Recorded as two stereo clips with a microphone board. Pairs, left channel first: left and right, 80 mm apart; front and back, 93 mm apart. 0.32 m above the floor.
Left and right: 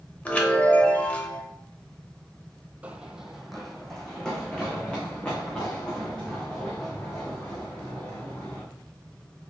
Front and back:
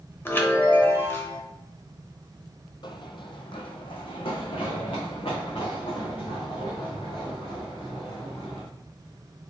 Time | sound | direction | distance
0.2 | a chime | 35° left | 0.8 m
2.8 | running footsteps | 20° right | 0.5 m